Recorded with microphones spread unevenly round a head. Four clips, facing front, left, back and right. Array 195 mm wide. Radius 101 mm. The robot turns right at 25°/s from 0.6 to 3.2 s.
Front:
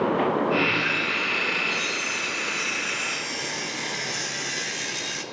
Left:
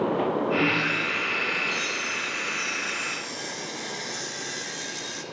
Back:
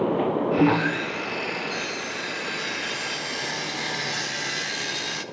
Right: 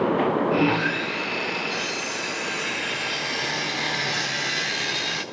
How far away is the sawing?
About 1.3 m.